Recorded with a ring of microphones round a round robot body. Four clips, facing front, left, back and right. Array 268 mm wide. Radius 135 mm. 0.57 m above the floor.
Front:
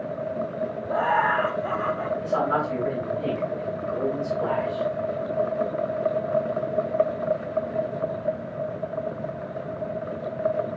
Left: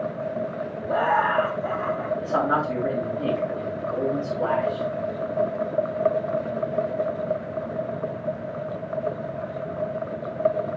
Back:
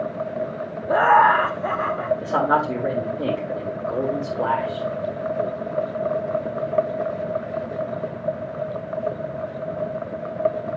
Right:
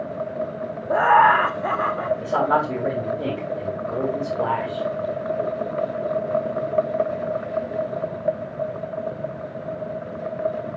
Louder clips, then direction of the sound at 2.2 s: Right 3 dB, back 4 dB; 170° right.